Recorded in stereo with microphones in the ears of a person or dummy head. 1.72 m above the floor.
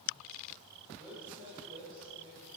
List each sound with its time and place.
0.9 s a woman speaking: 25° right (ahead or behind), 9.5 m